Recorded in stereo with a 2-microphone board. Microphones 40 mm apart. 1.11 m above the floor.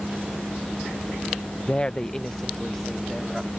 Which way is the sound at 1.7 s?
35° left (ahead or behind).